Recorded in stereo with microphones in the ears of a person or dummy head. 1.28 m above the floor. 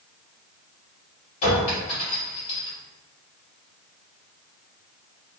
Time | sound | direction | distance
1.4 | a clink | 40° left (ahead or behind) | 1.7 m